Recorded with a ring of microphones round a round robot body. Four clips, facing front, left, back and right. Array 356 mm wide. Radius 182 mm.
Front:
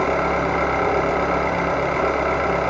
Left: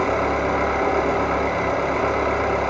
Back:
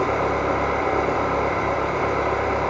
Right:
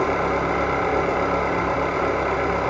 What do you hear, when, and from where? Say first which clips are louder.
0.0 s an engine running: left 1 dB, front 1 dB; 5° right, 1.5 m